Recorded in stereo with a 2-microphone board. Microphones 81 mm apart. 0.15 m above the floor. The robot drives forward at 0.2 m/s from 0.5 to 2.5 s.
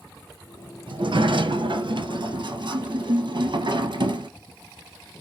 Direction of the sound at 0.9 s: 80° right.